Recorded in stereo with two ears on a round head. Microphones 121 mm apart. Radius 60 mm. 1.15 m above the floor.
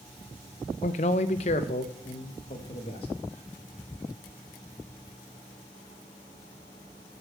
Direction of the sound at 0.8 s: 55° left (ahead or behind).